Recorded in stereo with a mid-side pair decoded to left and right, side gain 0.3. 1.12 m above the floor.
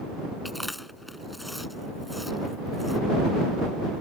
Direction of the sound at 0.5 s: 15° left.